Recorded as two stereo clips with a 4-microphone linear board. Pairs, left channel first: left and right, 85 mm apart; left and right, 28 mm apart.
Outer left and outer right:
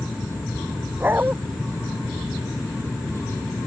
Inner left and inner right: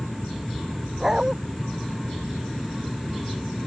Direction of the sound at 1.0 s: 20° right (ahead or behind).